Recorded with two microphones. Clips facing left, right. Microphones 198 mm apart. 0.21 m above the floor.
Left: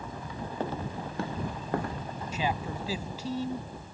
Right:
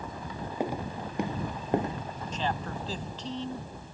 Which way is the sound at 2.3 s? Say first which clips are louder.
Left 1 dB; 10° left (ahead or behind).